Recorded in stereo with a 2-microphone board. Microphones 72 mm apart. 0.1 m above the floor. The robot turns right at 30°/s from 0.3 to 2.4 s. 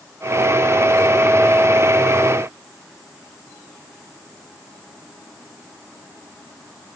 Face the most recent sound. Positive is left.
No sound to turn to.